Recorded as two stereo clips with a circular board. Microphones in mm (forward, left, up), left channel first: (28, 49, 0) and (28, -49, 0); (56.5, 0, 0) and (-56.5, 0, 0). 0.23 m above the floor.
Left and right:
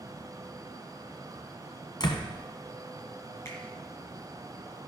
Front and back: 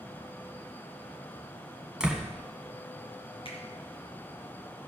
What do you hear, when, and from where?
2.0 s a door slam: 100° left, 1.5 m
3.5 s a finger snap: 30° left, 3.5 m